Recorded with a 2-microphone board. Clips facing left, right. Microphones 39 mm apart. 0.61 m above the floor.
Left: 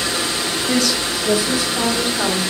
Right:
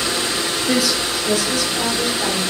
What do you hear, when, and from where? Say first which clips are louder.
0.7 s a woman speaking: even; 15° right (ahead or behind), 0.6 m; by 2.4 s 45° left (ahead or behind), 1.7 m